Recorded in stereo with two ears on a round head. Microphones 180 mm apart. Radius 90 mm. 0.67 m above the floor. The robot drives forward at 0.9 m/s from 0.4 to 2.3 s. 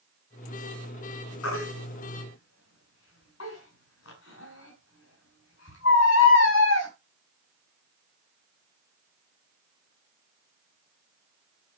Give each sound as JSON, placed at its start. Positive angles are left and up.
{"t": 1.4, "sound": "a baby crying", "side_deg": 80, "distance_m": 5.0}